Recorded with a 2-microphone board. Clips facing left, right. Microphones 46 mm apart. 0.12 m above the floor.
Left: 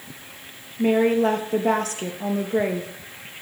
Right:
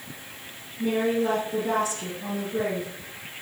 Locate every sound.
0.8 s a woman speaking: 60° left (ahead or behind), 2.5 m